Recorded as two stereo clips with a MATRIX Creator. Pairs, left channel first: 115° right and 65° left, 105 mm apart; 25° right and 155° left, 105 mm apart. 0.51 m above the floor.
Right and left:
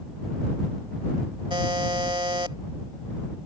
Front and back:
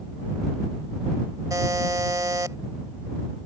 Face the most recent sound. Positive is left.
turn(degrees=105)